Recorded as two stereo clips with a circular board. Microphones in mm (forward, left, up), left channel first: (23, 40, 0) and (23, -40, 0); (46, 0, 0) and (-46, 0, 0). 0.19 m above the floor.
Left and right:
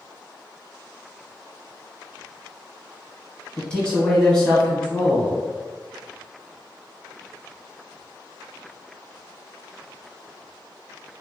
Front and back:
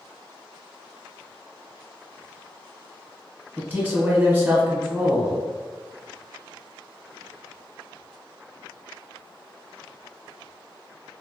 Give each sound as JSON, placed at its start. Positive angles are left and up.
{"t": 3.6, "sound": "a man speaking", "azimuth_deg": 150, "distance_m": 1.0}